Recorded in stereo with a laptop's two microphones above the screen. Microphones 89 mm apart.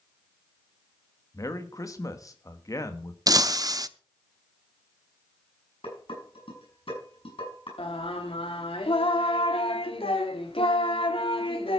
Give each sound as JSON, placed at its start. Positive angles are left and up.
{"t": 1.3, "sound": "a man speaking", "side_deg": 40, "distance_m": 1.4}
{"t": 3.3, "sound": "breaking glass", "side_deg": -45, "distance_m": 0.7}
{"t": 5.8, "sound": "dishes clattering", "side_deg": 80, "distance_m": 8.5}
{"t": 7.8, "sound": "singing", "side_deg": 85, "distance_m": 1.7}